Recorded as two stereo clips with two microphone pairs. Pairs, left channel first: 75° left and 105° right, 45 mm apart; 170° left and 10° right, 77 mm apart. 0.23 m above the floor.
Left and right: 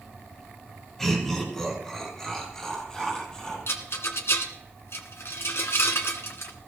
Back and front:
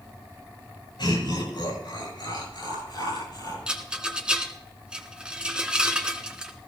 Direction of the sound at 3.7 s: 70° left.